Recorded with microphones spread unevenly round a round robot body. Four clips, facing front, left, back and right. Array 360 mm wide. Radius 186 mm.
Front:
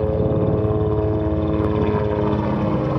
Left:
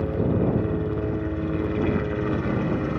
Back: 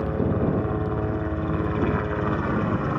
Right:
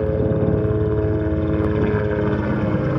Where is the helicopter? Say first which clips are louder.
Right 4 dB, front 5 dB; 50° right.